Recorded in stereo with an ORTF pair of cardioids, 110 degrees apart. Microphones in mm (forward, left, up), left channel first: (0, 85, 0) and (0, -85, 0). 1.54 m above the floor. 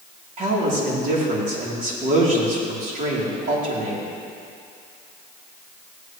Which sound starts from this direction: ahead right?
A man speaking, at 0.4 s.